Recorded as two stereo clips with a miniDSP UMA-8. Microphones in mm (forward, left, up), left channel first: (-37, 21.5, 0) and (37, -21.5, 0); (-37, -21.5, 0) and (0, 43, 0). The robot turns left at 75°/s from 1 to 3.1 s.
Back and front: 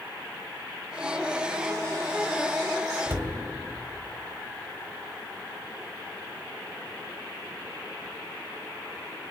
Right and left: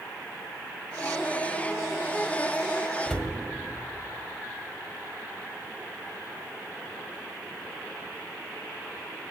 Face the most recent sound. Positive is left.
turn(degrees=-30)